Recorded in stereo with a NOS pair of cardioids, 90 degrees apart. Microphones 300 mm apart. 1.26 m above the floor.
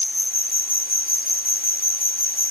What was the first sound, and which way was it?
An insect, 30° left.